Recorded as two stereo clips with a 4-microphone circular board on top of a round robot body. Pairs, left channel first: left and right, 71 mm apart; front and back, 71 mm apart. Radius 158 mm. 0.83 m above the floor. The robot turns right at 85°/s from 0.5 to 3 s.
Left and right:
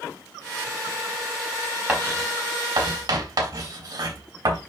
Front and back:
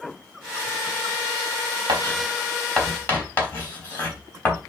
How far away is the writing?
About 4.5 m.